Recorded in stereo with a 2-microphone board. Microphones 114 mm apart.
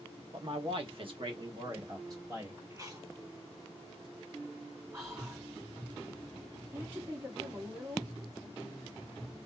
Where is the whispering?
25° right (ahead or behind), 2.0 m.